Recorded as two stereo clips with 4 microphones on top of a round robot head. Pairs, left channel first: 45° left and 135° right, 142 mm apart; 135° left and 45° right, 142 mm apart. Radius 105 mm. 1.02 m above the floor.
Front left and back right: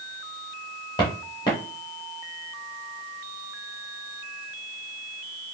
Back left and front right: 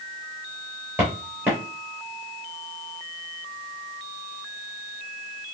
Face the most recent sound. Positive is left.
turn(degrees=20)